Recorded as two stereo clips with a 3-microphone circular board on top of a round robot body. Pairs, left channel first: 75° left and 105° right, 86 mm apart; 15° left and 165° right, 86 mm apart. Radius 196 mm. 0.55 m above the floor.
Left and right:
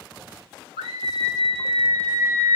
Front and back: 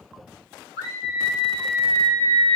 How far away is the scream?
About 1.7 m.